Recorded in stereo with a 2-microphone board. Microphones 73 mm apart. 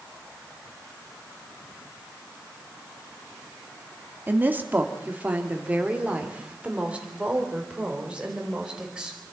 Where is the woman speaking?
30° right (ahead or behind), 1.9 m; by 9.2 s 15° right (ahead or behind), 4.5 m.